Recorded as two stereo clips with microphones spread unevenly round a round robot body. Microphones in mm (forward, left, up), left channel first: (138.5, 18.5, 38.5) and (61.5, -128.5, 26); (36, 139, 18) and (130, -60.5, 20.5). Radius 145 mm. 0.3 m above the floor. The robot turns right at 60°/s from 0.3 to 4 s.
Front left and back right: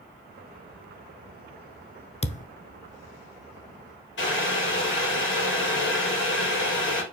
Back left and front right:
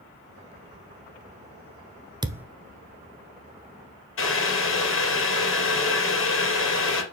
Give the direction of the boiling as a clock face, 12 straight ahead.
9 o'clock.